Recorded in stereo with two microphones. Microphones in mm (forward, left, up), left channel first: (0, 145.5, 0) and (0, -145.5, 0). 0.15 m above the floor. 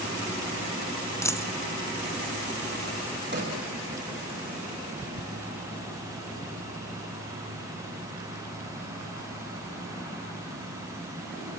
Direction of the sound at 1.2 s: 10° left (ahead or behind).